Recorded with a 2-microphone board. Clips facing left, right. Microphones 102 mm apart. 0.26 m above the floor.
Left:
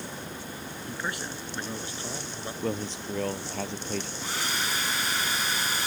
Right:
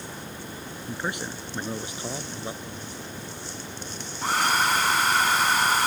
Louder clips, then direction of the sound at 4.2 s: Right 9 dB; 65° right (ahead or behind).